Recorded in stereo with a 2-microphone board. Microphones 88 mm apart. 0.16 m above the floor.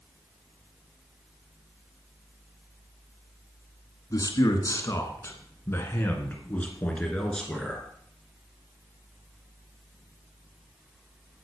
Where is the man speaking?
45° left (ahead or behind), 1.9 m; by 7.9 s 5° left (ahead or behind), 2.5 m.